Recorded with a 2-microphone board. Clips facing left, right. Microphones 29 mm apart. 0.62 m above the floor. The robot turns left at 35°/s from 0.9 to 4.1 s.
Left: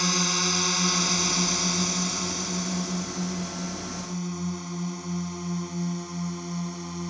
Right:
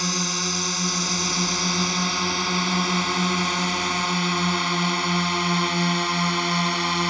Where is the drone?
5° left (ahead or behind); by 7.1 s 80° right.